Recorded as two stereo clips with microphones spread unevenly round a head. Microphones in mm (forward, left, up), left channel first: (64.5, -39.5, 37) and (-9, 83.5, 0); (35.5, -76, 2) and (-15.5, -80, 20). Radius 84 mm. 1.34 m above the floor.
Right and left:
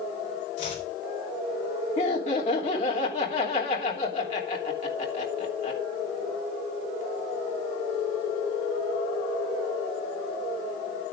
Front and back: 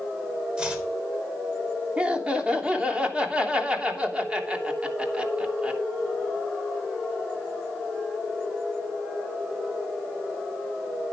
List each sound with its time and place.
0.6 s chopping: 105° right, 4 m
2.0 s laughter: 110° right, 3 m